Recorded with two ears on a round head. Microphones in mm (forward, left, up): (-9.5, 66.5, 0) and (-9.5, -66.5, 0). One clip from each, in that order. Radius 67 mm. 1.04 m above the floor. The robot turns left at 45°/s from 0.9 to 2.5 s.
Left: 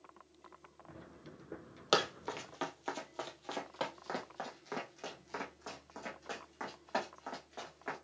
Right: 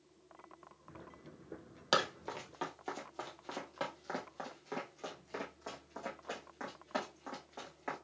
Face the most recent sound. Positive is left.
turn(degrees=15)  # may be behind; listen again after turning